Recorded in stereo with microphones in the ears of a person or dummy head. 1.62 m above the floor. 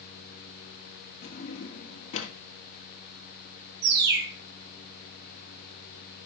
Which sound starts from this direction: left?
A drawer, at 1.2 s.